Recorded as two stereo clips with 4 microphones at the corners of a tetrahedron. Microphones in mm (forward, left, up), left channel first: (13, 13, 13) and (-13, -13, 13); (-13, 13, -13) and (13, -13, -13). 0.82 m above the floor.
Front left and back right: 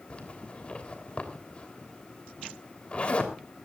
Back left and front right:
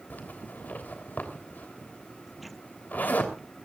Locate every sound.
0.1 s a zipper: 100° left, 3 m